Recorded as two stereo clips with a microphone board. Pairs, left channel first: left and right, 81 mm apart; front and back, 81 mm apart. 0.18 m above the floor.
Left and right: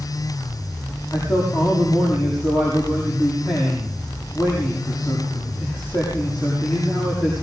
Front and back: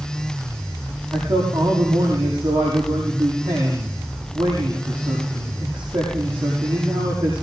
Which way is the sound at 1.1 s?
175° right.